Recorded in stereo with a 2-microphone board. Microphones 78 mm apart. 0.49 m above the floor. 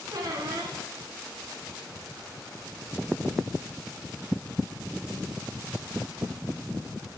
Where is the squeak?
60° right (ahead or behind), 1.1 m.